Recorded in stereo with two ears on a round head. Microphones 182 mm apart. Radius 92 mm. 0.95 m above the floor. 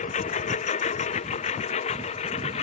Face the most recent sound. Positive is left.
turn(degrees=35)  # may be behind; listen again after turning